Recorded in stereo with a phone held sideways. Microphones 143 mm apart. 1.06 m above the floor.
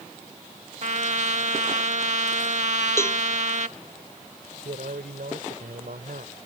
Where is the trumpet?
55° right (ahead or behind).